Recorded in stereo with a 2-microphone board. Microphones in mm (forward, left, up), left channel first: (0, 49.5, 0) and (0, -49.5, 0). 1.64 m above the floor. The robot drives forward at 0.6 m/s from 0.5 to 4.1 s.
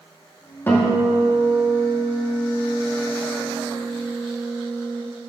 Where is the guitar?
25° left (ahead or behind), 2.5 m; by 5.0 s 60° left (ahead or behind), 1.1 m.